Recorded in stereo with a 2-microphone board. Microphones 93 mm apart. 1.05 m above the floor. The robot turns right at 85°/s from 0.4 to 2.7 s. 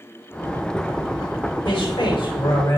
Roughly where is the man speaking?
Ahead left.